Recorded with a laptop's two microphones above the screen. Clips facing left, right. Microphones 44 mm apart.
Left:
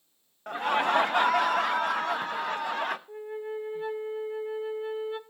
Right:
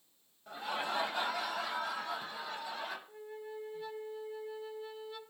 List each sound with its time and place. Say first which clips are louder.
0.5 s laughter: left 11 dB; 60° left (ahead or behind), 0.9 m
3.1 s a flute: left 10 dB; 35° left (ahead or behind), 0.5 m